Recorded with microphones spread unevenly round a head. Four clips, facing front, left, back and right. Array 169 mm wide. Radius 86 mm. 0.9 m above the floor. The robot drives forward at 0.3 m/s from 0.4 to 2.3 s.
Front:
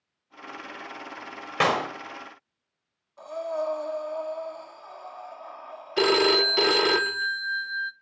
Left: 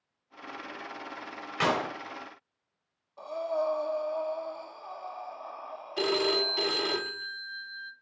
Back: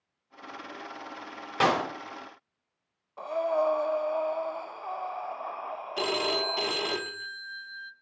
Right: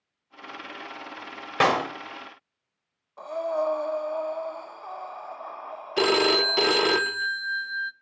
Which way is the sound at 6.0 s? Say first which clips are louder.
Right 6 dB, front 9 dB; 60° right.